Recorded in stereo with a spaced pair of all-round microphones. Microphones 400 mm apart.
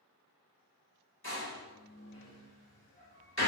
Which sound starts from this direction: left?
A door slam, at 1.2 s.